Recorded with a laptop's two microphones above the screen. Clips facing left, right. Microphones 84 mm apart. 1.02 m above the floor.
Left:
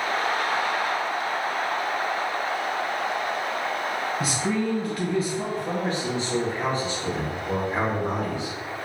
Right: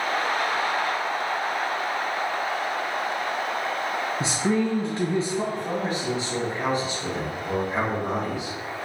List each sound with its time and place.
4.2 s a man speaking: 25° right (ahead or behind), 0.6 m
5.5 s a man speaking: 40° right (ahead or behind), 1.4 m